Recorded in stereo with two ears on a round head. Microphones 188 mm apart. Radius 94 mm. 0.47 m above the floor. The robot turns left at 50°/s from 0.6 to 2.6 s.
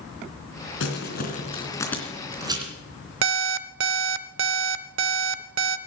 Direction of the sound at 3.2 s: 65° right (ahead or behind).